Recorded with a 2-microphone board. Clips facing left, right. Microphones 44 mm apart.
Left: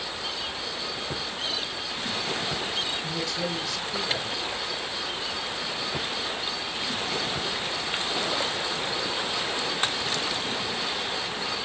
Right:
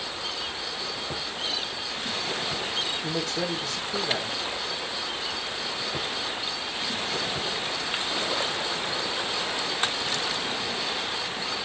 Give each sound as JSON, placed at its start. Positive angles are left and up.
{"t": 3.0, "sound": "a man speaking", "side_deg": -40, "distance_m": 5.5}